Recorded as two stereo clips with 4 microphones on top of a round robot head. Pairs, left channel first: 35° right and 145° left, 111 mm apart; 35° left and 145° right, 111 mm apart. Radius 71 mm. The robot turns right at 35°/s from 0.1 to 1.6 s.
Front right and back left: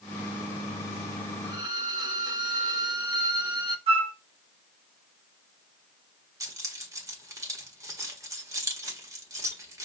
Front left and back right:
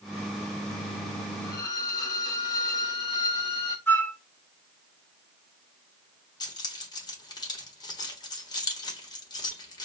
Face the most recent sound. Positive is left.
turn(degrees=85)